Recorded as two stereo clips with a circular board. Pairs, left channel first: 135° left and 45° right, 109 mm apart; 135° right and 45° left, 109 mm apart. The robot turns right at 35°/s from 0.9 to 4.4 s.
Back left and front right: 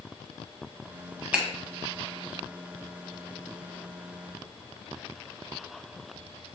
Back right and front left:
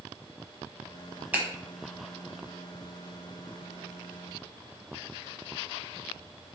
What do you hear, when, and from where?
1.3 s a finger snap: 5° left, 0.9 m; by 1.5 s 10° left, 0.9 m